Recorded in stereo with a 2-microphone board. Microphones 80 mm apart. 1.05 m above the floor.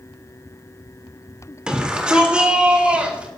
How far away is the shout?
About 3 m.